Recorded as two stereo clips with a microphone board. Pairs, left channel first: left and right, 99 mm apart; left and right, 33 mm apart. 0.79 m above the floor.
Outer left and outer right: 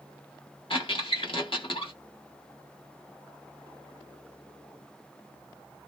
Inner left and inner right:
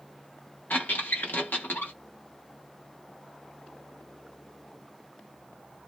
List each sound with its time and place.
0.7 s a squeak: 75° left (ahead or behind), 1.2 m